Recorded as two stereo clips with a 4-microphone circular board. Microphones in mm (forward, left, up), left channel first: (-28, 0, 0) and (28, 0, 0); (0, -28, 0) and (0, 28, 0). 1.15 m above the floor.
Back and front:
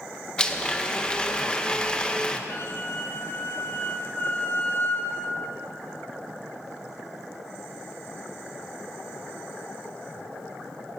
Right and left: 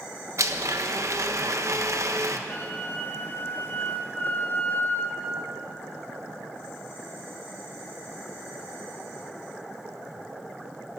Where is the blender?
105° left, 1.3 m.